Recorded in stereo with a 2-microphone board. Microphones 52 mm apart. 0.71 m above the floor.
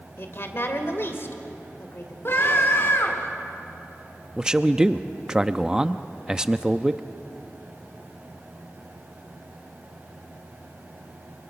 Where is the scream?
50° left (ahead or behind), 2.5 m.